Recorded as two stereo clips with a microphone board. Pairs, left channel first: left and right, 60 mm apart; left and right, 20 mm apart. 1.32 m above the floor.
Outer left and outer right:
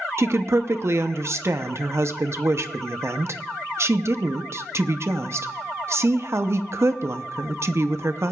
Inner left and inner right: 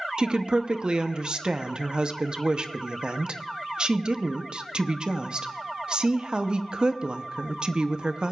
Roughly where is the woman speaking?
Right.